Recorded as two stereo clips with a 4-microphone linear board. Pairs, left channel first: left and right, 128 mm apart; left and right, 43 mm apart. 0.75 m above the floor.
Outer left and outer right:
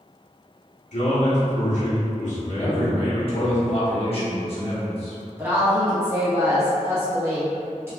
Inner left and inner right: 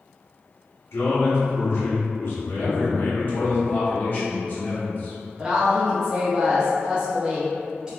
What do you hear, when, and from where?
0.9 s a man speaking: 70° left (ahead or behind), 1.1 m
2.6 s a man speaking: 50° left (ahead or behind), 1.1 m
5.4 s a woman speaking: 20° right (ahead or behind), 0.7 m